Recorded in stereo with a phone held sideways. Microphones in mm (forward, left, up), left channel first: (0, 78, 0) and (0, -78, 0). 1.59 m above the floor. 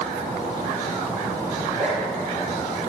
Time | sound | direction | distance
1.6 | a zipper | 55° right (ahead or behind) | 3 m